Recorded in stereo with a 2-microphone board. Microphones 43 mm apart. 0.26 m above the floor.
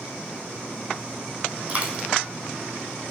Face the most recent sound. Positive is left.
turn(degrees=-30)  # may be behind; listen again after turning